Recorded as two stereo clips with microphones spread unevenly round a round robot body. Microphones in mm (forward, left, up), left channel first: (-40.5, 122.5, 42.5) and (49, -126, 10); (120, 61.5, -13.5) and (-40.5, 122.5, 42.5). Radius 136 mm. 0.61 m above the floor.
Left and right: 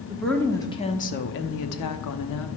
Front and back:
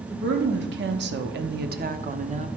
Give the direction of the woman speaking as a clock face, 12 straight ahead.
5 o'clock.